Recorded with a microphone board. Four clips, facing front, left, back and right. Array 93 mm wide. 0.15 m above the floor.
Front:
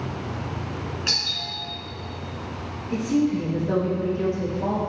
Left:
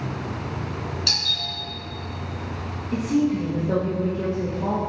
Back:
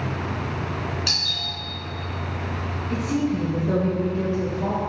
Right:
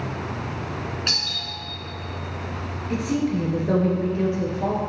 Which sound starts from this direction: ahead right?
A doorbell, at 1.1 s.